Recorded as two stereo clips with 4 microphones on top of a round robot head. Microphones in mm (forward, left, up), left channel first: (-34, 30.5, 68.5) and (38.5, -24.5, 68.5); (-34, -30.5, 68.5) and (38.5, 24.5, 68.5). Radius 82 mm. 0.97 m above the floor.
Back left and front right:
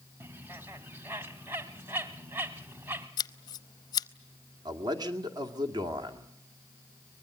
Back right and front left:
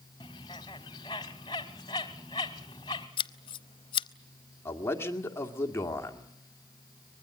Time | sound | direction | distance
0.2 | a bird | 105° right | 1.0 m
3.2 | scissors | 170° right | 0.6 m
4.7 | a man speaking | 80° right | 2 m